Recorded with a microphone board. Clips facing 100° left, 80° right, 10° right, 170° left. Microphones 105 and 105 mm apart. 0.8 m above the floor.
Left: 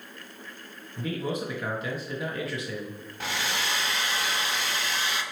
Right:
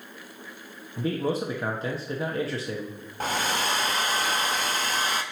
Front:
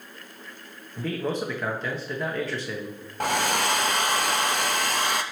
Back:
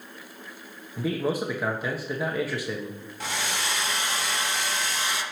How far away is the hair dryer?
About 0.6 m.